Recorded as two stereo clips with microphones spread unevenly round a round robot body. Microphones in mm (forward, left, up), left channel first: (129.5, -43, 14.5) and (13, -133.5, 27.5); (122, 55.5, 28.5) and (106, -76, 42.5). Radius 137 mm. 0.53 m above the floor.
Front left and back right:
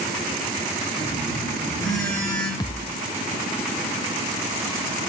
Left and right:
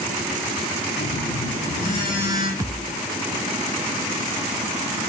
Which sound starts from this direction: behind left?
A phone buzzing, at 1.0 s.